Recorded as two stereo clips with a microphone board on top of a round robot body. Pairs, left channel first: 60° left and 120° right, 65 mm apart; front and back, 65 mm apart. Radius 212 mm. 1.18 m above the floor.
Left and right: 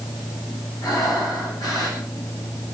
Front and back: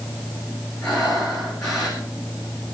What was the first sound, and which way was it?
Breathing, 80° left.